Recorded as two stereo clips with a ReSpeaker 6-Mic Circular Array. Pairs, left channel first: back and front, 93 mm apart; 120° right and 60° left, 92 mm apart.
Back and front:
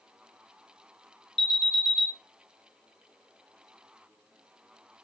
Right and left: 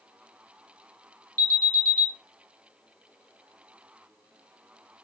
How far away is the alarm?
About 2 m.